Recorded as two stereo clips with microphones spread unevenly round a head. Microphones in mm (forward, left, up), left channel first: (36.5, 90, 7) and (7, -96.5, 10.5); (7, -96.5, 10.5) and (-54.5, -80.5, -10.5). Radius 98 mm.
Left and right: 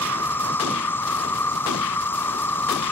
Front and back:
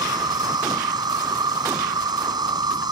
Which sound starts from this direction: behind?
An insect, at 0.0 s.